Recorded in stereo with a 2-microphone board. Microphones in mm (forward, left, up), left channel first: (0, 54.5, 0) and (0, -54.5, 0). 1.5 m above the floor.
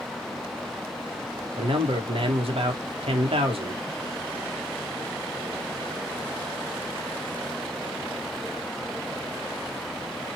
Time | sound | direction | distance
1.6 | a man speaking | 65° right (ahead or behind) | 1.0 m